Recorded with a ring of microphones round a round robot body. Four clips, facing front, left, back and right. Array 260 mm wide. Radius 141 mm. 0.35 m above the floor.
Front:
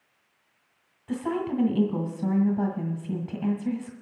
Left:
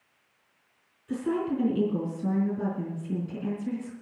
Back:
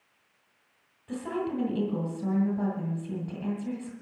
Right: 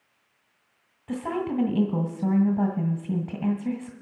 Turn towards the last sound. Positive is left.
turn(degrees=-75)